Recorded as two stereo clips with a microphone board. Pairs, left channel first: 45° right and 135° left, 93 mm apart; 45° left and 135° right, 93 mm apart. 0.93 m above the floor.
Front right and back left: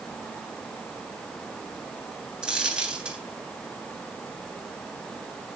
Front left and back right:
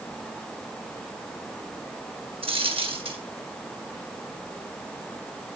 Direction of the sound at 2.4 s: 145° right.